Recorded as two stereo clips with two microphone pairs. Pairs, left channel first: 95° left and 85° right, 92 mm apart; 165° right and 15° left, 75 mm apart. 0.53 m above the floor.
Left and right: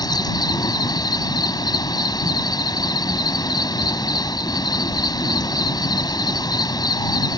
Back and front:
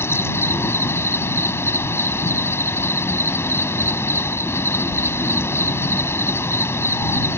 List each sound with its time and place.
0.0 s an insect: 140° left